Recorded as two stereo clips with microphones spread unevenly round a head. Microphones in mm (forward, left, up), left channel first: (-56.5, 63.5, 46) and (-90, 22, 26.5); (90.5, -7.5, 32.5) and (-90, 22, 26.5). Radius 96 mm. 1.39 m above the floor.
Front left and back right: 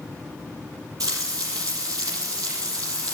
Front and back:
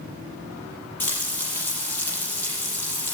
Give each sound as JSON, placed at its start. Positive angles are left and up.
{"t": 1.0, "sound": "frying", "azimuth_deg": -90, "distance_m": 6.0}